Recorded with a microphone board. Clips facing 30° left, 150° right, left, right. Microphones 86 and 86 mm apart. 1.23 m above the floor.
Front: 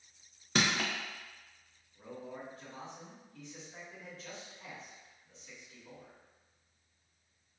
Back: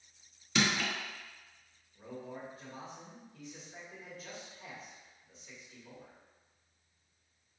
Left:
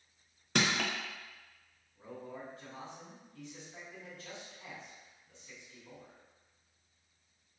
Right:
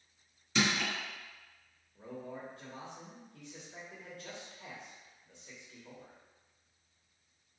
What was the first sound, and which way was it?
Crushing, 70° left.